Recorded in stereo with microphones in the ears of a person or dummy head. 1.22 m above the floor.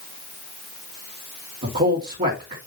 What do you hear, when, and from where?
1.6 s a man speaking: 45° right (ahead or behind), 2.5 m